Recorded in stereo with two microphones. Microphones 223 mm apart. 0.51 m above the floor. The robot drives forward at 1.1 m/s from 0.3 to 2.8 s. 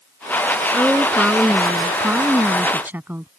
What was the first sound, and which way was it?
A woman speaking, 5° right (ahead or behind).